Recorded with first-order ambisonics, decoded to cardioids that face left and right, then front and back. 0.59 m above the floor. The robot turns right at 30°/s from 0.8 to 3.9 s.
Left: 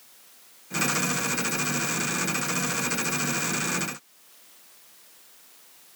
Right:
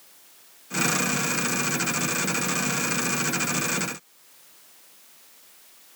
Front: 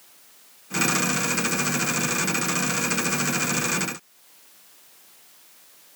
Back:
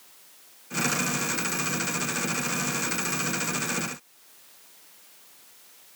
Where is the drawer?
I don't hear a drawer.